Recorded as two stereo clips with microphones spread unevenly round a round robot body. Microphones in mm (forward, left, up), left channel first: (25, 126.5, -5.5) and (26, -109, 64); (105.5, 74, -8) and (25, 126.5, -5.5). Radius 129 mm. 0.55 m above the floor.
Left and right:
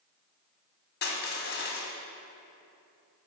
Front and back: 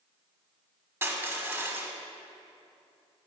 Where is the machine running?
I don't hear a machine running.